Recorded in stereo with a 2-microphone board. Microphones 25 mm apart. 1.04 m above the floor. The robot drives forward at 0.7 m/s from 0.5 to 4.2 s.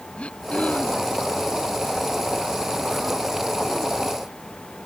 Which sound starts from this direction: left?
Throat clearing, at 0.2 s.